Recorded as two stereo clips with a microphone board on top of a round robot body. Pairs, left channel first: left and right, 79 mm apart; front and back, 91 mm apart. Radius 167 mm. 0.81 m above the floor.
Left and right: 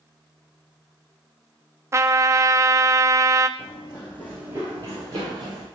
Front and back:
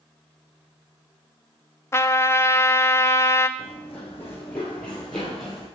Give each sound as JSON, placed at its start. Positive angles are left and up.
{"t": 1.9, "sound": "a trumpet", "azimuth_deg": -50, "distance_m": 0.6}
{"t": 3.6, "sound": "running footsteps", "azimuth_deg": 85, "distance_m": 1.1}